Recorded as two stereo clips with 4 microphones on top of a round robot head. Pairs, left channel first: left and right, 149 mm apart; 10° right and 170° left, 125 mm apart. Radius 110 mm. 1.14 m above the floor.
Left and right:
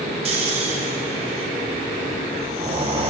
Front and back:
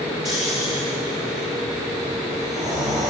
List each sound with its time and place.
0.2 s snoring: 120° right, 0.7 m